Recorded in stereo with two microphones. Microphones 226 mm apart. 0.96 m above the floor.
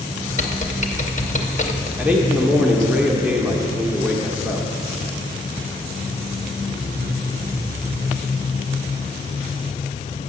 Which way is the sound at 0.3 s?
35° left (ahead or behind).